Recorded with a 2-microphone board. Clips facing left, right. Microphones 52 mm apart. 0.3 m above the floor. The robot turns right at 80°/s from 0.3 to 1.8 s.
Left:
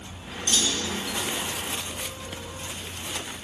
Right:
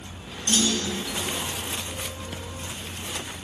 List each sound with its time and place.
0.5 s a clunk: 160° right, 1.5 m; by 1.0 s 115° right, 1.5 m